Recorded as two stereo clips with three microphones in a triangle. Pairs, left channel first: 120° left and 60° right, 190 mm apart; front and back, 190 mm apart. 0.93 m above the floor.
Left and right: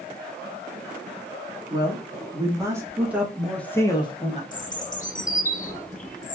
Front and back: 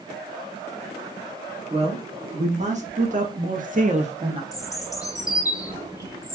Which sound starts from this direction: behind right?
A man speaking, at 1.7 s.